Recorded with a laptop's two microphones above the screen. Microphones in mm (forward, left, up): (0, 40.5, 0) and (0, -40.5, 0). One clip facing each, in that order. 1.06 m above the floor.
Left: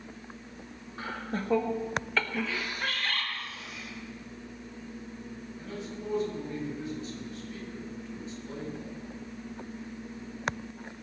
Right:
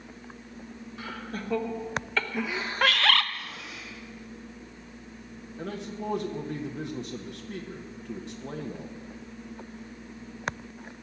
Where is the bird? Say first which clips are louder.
Right 12 dB; 80° right, 0.6 m.